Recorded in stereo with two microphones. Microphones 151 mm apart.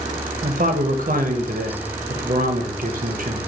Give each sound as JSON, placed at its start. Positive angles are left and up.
{"t": 0.4, "sound": "a man speaking", "side_deg": -65, "distance_m": 0.7}